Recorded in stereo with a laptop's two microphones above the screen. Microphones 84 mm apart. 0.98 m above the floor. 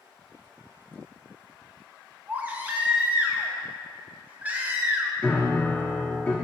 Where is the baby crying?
20° right (ahead or behind), 0.7 m.